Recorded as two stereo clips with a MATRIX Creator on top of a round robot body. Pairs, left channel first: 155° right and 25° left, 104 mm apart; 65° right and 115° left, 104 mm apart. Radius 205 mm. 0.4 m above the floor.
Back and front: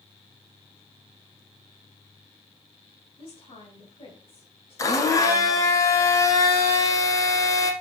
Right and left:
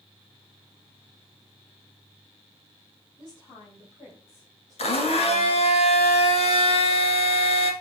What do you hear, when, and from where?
3.2 s a woman speaking: 115° right, 4 m; by 5.8 s 125° right, 2.5 m
4.8 s a blender: 95° right, 1.4 m